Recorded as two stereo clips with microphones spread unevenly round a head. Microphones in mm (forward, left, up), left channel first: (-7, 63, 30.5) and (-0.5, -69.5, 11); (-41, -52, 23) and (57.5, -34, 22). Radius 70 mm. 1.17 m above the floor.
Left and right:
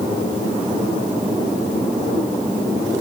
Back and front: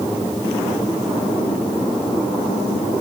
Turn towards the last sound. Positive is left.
No sound to turn to.